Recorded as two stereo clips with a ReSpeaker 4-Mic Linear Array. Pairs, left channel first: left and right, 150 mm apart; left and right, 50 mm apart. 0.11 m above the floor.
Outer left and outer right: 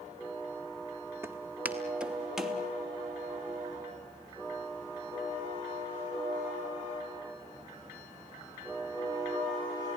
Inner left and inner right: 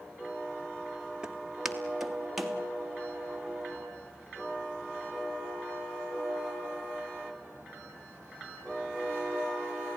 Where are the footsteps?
15° right (ahead or behind), 2.5 m; by 2.6 s centre (ahead or behind), 3 m.